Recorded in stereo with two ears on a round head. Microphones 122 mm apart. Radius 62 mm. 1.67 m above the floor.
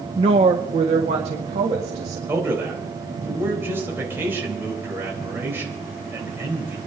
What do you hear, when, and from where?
0.2 s a woman speaking: 40° right (ahead or behind), 0.7 m; by 2.2 s 50° right (ahead or behind), 2.5 m
2.3 s a man speaking: 15° right (ahead or behind), 3.5 m